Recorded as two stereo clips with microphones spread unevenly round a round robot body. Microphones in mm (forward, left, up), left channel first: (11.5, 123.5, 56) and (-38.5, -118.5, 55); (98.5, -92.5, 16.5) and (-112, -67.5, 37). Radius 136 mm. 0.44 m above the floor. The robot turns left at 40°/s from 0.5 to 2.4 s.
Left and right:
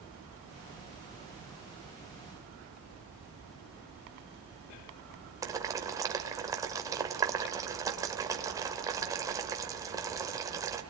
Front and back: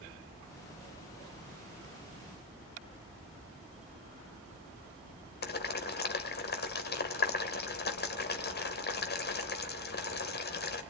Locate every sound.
5.4 s boiling: 25° right, 2 m